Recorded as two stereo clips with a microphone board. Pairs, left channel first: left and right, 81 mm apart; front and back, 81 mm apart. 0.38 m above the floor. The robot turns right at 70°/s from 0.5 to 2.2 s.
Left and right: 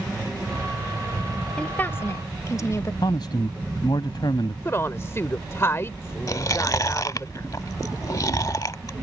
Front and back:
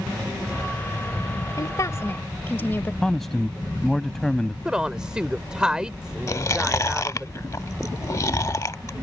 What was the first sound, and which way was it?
A woman speaking, 15° left.